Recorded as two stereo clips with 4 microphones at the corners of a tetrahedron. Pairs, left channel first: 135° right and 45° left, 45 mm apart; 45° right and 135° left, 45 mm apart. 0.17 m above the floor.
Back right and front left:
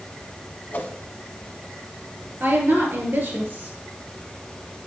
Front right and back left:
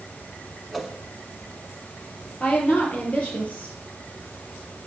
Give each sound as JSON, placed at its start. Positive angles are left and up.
{"t": 0.7, "sound": "a whoosh", "azimuth_deg": -135, "distance_m": 1.2}
{"t": 2.4, "sound": "a woman speaking", "azimuth_deg": 10, "distance_m": 3.5}